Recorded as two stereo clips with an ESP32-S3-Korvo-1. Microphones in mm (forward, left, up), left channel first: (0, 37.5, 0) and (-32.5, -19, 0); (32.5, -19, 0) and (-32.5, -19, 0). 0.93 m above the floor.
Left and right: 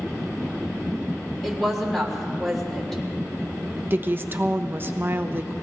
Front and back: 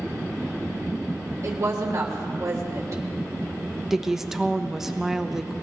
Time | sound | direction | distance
1.4 | a woman speaking | 145° left | 3.5 m
3.9 | a woman speaking | 100° right | 0.8 m